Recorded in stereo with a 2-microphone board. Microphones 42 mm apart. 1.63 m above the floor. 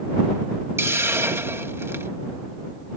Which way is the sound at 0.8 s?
85° right.